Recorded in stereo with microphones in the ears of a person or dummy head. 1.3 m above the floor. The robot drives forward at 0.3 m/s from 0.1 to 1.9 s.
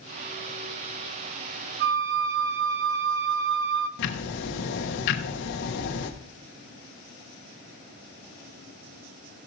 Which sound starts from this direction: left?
Ticking, at 4.0 s.